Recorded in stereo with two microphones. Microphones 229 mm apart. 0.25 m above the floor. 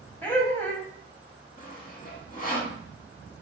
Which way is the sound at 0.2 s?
10° left (ahead or behind).